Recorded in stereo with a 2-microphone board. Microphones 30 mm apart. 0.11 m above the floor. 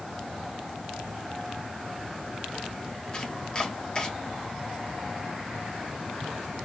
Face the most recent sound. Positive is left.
turn(degrees=30)  # may be behind; listen again after turning